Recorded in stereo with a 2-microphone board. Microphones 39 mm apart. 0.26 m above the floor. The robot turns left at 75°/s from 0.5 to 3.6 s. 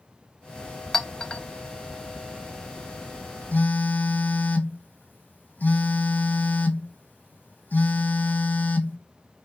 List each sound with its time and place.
0.9 s a clink: 5° left (ahead or behind), 0.6 m; by 1.4 s 30° left (ahead or behind), 0.6 m
3.5 s a phone buzzing: 50° left (ahead or behind), 0.8 m